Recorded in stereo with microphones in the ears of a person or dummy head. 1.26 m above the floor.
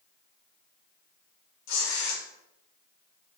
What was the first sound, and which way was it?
Tearing paper, 75° left (ahead or behind).